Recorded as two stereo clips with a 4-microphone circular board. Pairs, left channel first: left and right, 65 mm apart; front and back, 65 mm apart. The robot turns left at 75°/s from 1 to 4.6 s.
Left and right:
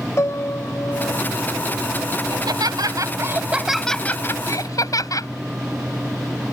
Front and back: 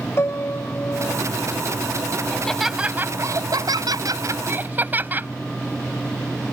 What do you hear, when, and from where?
0.2 s a piano: 50° left; by 1.2 s 30° left
2.3 s laughter: 70° right; by 5.3 s 120° left